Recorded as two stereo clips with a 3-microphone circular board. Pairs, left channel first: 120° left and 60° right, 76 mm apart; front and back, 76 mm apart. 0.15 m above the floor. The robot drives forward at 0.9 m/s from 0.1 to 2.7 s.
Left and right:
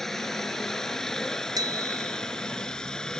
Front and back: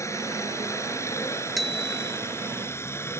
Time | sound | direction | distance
0.0 | a helicopter | 35° left | ?
1.6 | a bicycle bell | 90° right | ?